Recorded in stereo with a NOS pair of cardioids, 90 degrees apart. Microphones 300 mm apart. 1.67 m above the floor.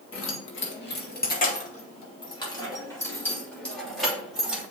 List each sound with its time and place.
0.1 s keys jangling: 50° left, 1.9 m; by 4.6 s 5° right, 3 m